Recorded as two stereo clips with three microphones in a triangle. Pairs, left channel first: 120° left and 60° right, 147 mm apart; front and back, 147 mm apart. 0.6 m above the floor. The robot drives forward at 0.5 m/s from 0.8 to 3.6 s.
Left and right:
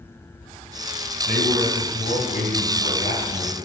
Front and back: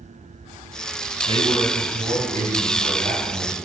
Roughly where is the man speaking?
Behind left.